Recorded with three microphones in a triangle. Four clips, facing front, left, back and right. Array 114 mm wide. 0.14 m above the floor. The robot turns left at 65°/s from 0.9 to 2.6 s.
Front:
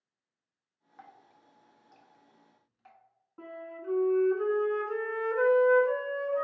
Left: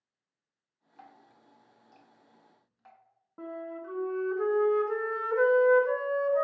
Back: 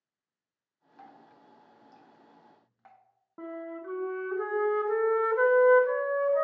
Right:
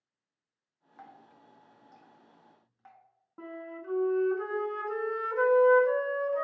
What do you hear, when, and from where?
1.0 s dripping: 55° right, 0.7 m; by 3.0 s 160° right, 0.7 m
3.4 s a flute: 175° left, 0.5 m